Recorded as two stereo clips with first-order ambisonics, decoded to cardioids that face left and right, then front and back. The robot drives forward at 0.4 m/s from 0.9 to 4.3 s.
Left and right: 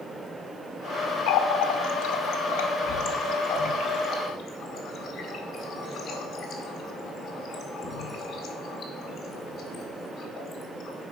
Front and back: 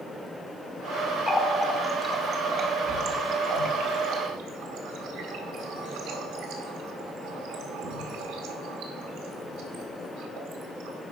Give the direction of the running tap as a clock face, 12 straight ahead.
9 o'clock.